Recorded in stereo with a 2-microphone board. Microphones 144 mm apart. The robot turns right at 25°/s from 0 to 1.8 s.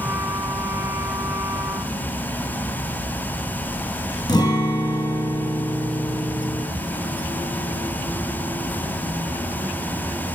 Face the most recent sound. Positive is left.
turn(degrees=30)  # may be behind; listen again after turning